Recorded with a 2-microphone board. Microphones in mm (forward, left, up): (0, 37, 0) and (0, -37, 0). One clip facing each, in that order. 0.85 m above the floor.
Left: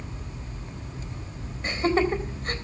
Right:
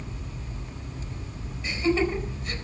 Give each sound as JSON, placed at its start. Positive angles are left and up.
{"t": 1.6, "sound": "laughter", "side_deg": 45, "distance_m": 4.0}